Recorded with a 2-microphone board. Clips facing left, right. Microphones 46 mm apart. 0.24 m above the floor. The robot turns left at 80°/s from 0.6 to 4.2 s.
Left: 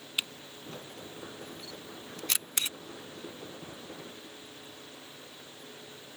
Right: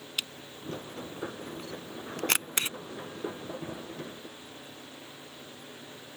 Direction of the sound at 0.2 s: 20° left (ahead or behind).